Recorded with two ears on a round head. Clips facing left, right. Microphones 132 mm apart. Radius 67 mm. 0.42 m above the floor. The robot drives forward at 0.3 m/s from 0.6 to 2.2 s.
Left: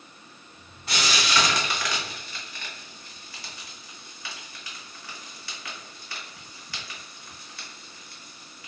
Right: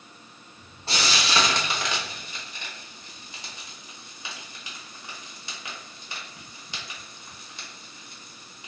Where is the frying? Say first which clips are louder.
Even; 25° right (ahead or behind), 0.6 m; by 8.7 s 20° right (ahead or behind), 0.9 m.